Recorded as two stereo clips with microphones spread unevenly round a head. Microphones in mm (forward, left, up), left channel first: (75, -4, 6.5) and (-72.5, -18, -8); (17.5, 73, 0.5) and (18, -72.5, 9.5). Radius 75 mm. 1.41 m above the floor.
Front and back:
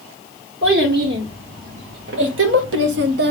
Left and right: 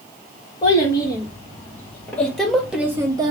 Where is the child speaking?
160° left, 2 m; by 3.3 s 150° right, 0.8 m.